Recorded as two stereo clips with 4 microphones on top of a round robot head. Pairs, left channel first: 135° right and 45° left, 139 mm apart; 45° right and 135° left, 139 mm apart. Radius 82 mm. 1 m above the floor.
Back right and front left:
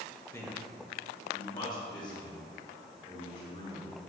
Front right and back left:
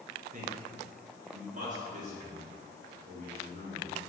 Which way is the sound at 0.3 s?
150° left.